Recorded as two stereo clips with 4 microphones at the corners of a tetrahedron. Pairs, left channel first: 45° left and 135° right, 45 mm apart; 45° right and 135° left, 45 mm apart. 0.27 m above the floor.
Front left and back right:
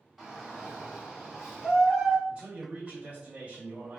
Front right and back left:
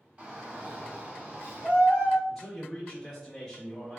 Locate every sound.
0.2 s a shout: 150° left, 1.5 m; by 2.2 s 140° left, 2.5 m
2.3 s a man speaking: 115° right, 1.0 m